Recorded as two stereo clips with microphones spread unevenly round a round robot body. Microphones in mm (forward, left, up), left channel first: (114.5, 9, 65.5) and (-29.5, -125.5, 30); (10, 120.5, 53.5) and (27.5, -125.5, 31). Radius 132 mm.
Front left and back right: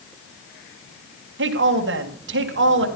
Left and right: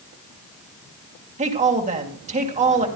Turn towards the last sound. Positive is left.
turn(degrees=-145)